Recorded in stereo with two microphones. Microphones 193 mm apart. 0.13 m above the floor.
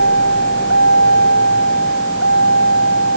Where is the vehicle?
75° left (ahead or behind); by 3.2 s 90° left.